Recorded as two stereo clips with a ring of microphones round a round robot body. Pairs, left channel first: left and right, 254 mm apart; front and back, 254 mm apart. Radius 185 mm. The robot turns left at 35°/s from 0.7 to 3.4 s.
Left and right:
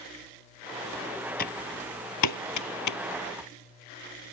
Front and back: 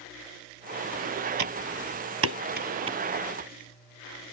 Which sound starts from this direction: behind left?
Typing on a keyboard, at 1.4 s.